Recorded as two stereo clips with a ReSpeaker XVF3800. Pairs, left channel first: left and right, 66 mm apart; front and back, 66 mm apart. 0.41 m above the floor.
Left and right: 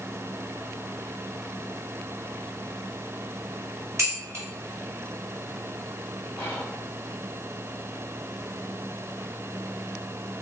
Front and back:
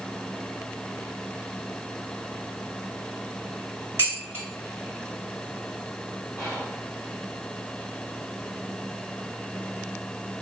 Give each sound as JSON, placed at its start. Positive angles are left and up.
{"t": 4.0, "sound": "dishes clattering", "azimuth_deg": -135, "distance_m": 1.7}
{"t": 6.4, "sound": "whispering", "azimuth_deg": 95, "distance_m": 1.6}